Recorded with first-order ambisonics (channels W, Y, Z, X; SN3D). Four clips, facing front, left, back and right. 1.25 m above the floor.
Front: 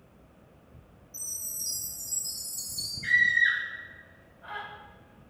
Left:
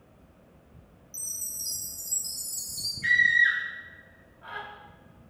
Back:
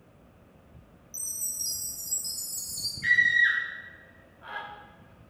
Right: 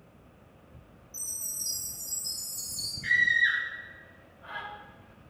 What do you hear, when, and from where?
1.1 s a chime: 145° left, 1.0 m
3.0 s a scream: 155° left, 1.6 m